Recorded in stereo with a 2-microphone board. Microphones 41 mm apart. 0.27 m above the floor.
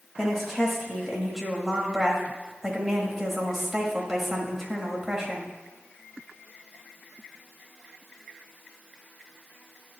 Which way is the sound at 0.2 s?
5° right (ahead or behind).